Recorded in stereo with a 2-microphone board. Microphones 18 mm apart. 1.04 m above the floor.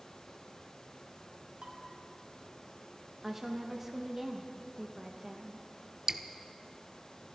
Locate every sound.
1.6 s dishes clattering: 85° right, 4 m
3.2 s a woman speaking: 15° right (ahead or behind), 1.0 m
6.1 s dripping: 30° right (ahead or behind), 0.7 m